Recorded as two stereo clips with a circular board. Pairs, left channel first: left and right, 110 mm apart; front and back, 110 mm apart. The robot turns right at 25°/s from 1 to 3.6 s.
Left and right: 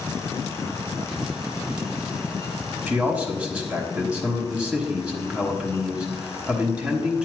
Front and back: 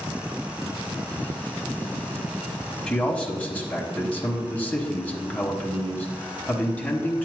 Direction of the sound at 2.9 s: 55° right.